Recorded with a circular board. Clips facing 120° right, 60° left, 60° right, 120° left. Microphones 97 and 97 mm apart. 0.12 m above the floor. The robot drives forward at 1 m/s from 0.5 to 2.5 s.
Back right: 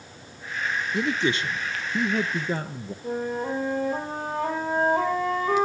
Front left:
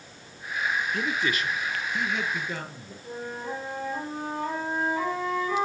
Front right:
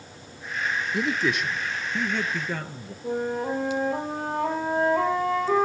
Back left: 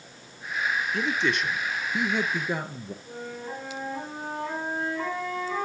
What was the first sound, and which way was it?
A man speaking, 110° right.